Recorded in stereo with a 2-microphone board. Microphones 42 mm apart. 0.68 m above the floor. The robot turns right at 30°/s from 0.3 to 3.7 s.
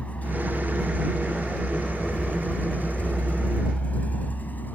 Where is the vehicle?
35° left (ahead or behind); by 4.8 s 50° left (ahead or behind).